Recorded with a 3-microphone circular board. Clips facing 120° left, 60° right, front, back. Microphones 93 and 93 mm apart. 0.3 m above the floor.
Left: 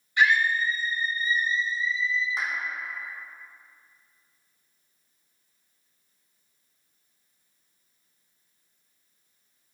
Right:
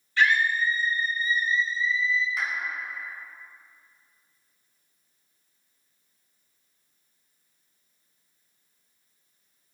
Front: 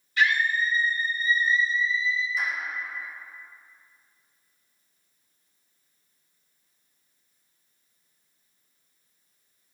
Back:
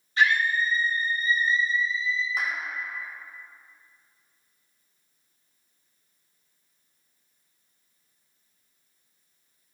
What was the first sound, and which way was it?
A scream, 175° left.